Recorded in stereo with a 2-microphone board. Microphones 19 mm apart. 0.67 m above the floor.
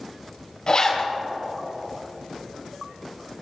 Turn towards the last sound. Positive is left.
turn(degrees=50)  # may be behind; listen again after turning